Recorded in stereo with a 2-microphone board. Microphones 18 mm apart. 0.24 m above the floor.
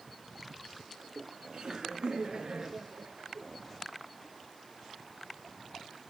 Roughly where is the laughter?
Right.